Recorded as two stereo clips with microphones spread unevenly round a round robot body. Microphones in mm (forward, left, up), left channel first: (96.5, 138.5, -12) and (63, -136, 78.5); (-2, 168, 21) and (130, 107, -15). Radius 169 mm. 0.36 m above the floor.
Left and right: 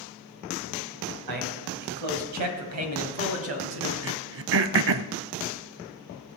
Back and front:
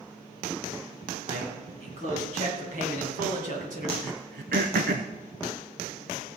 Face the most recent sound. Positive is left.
turn(degrees=-60)